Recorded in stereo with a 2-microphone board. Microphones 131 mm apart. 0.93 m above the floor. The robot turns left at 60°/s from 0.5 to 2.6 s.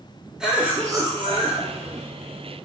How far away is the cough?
About 0.7 m.